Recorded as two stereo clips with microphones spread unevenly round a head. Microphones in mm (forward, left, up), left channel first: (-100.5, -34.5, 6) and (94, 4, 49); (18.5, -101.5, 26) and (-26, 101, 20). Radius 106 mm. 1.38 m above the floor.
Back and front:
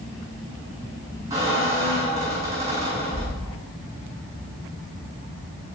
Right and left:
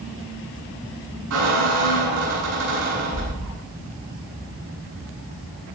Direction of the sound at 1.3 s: 85° left.